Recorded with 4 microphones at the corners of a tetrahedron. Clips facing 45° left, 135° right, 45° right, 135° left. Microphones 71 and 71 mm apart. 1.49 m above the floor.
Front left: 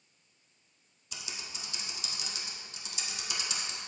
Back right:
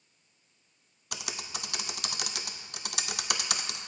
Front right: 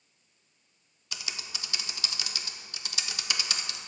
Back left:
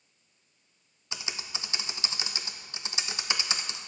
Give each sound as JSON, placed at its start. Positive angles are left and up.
{"t": 1.1, "sound": "typing on a keyboard", "azimuth_deg": -160, "distance_m": 0.5}